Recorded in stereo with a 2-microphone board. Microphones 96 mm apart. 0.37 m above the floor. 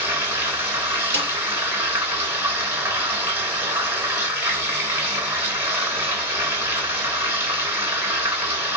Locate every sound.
0.0 s running water: 25° right (ahead or behind), 2 m
1.1 s a snare drum: 30° left (ahead or behind), 4 m